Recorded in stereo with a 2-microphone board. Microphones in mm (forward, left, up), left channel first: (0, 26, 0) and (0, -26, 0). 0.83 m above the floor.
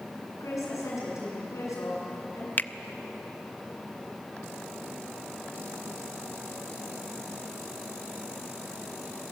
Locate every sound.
0.4 s a woman speaking: 80° left, 9 m
2.6 s a finger snap: 35° left (ahead or behind), 0.5 m